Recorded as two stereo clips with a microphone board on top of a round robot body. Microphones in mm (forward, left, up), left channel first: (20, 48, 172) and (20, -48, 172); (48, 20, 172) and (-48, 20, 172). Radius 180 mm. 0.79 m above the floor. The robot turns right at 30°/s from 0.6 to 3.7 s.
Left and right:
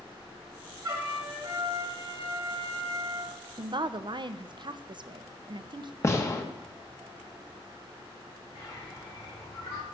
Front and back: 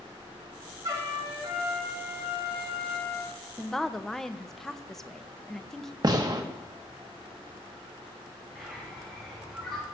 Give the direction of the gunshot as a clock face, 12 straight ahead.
7 o'clock.